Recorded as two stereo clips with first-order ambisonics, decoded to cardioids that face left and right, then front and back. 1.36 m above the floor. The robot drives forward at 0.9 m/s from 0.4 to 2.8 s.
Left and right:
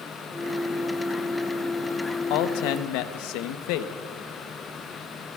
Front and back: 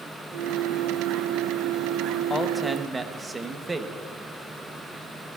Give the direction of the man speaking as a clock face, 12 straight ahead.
10 o'clock.